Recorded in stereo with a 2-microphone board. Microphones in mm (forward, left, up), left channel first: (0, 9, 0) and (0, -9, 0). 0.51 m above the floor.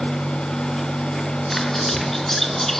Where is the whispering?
20° left (ahead or behind), 3.5 m.